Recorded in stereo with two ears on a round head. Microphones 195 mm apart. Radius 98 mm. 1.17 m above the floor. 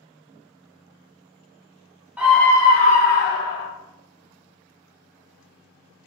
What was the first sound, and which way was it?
A scream, 5° right (ahead or behind).